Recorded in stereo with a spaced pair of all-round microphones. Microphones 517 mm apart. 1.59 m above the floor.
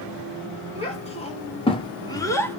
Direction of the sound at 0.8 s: 10° left (ahead or behind).